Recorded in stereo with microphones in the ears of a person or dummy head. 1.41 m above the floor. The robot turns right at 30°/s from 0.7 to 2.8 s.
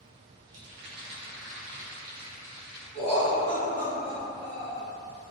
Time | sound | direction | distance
0.5 | a rattle | 70° right | 1.0 m
2.9 | laughter | 5° left (ahead or behind) | 1.1 m